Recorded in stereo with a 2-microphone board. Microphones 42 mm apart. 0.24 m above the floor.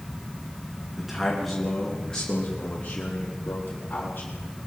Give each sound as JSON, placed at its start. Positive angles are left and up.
{"t": 1.0, "sound": "a man speaking", "side_deg": -10, "distance_m": 2.5}